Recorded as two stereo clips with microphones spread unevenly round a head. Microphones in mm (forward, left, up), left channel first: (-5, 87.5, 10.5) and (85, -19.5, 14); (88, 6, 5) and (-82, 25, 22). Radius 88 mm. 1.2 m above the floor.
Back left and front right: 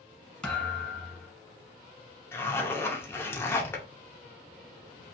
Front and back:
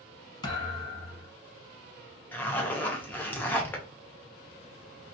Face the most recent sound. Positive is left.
turn(degrees=75)